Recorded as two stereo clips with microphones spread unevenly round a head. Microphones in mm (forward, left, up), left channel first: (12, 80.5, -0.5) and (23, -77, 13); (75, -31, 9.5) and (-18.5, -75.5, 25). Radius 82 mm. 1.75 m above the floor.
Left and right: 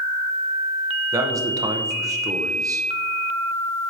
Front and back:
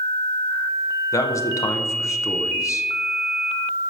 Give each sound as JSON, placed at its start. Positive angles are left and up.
{"t": 1.1, "sound": "a man speaking", "azimuth_deg": -30, "distance_m": 0.9}